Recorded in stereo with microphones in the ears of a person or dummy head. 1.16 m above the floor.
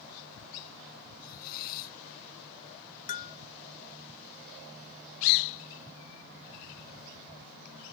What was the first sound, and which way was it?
A hiss, 50° left (ahead or behind).